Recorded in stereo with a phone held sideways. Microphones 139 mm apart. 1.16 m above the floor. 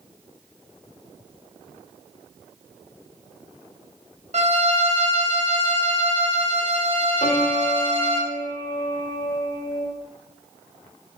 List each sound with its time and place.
4.3 s a violin: 60° right (ahead or behind), 1.6 m
7.2 s a piano: 65° left (ahead or behind), 2.5 m